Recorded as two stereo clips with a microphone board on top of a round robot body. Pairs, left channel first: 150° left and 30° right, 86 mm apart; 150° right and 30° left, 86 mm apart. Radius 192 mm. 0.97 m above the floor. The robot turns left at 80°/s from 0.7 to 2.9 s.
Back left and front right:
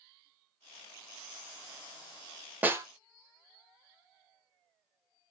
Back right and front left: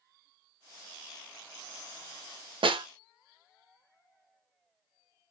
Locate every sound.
2.6 s a snare drum: 40° left, 0.7 m; by 2.9 s 20° left, 0.7 m